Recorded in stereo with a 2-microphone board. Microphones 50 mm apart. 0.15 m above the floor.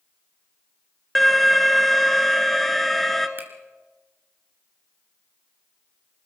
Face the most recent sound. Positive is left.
turn(degrees=-40)  # may be behind; listen again after turning